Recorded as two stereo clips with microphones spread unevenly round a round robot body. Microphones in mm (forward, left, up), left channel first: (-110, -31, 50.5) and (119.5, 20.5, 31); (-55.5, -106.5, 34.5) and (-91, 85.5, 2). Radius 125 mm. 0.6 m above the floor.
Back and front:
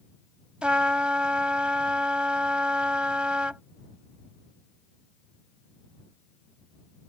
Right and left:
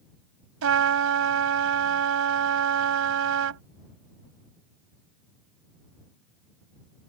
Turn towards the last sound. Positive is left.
turn(degrees=100)